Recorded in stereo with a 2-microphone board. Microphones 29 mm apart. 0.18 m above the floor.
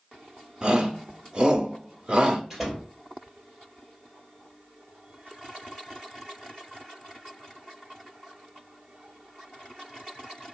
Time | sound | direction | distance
0.6 | a shout | 35° right (ahead or behind) | 1.1 m
2.5 | a door slam | centre (ahead or behind) | 3 m